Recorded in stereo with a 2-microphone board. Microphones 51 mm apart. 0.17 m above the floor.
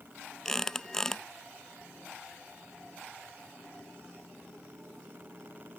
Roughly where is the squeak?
Centre.